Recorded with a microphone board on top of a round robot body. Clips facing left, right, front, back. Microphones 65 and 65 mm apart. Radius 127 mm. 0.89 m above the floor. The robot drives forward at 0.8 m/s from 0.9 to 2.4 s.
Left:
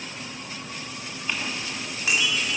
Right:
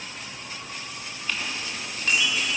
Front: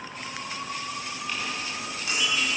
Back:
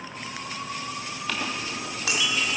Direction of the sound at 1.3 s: 165° left.